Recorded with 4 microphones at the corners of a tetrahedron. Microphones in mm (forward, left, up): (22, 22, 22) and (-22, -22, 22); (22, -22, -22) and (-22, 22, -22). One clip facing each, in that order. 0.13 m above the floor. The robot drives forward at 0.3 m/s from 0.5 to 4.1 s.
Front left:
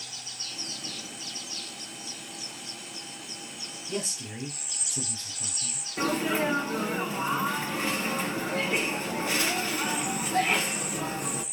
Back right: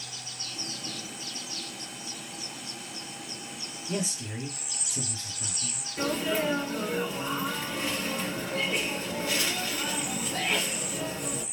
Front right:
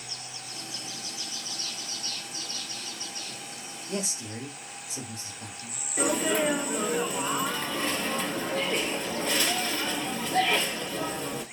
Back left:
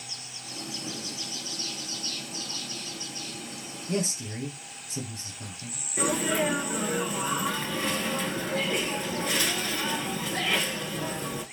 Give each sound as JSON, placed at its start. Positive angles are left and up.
{"t": 3.9, "sound": "a man speaking", "azimuth_deg": 145, "distance_m": 2.0}
{"t": 6.0, "sound": "a sneeze", "azimuth_deg": 65, "distance_m": 1.2}